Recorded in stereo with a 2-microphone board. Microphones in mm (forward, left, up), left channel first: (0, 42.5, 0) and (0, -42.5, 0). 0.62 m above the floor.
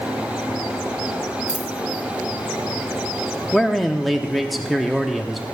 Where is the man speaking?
Centre (ahead or behind), 0.7 m.